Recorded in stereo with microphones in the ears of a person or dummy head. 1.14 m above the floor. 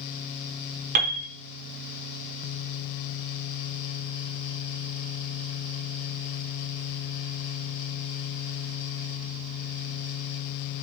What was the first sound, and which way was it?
A piano, 50° right (ahead or behind).